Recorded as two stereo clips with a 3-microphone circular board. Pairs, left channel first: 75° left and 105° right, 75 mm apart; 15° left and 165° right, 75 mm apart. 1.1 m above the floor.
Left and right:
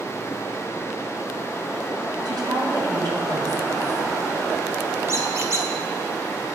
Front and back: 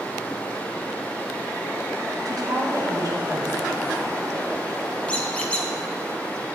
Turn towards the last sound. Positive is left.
turn(degrees=-55)